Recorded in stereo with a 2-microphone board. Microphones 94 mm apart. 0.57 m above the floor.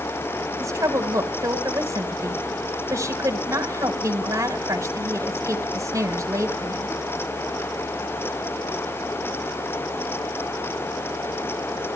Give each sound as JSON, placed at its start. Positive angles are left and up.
{"t": 0.6, "sound": "a woman speaking", "side_deg": -35, "distance_m": 3.0}